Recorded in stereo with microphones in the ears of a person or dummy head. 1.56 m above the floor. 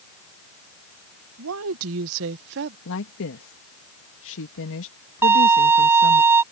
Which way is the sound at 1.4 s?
85° right.